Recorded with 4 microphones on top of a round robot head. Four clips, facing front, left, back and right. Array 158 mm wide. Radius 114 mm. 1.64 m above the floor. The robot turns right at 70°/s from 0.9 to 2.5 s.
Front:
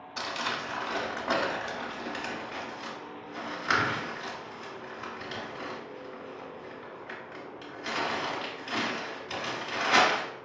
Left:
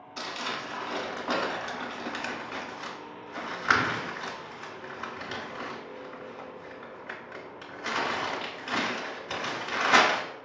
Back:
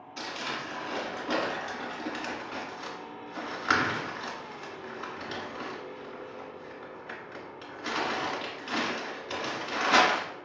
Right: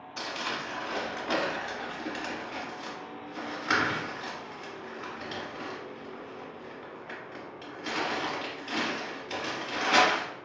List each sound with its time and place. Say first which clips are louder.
0.2 s crumpling: even, front 3 dB; straight ahead, 1.1 m; by 10.2 s 110° left, 1.1 m